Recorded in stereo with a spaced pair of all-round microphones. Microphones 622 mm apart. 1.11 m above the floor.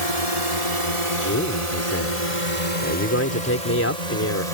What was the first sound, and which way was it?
A drone, 65° right (ahead or behind).